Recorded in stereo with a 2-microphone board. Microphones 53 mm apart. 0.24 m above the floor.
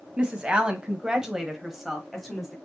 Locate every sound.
0.2 s a woman speaking: 20° right (ahead or behind), 1.4 m; by 2.5 s 5° left (ahead or behind), 1.3 m